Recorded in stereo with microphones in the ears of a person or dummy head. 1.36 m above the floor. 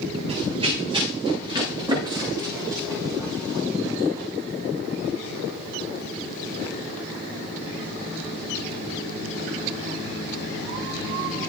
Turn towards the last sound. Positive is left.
turn(degrees=-10)  # may be behind; listen again after turning